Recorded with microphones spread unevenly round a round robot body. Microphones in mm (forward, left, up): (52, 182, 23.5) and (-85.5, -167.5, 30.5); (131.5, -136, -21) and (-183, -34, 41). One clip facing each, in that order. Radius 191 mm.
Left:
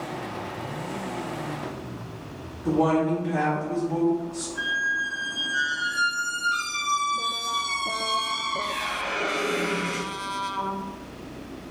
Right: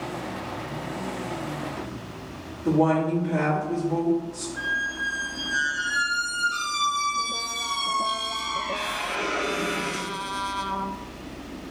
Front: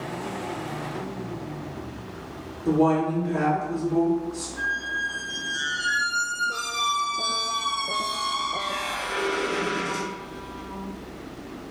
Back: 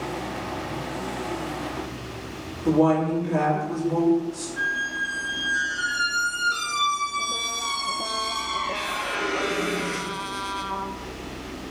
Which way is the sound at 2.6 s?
155° left.